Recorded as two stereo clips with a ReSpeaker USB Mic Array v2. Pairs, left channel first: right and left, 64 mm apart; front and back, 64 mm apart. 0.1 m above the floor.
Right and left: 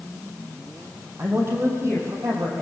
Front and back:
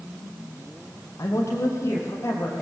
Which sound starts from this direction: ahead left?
A man speaking, at 1.2 s.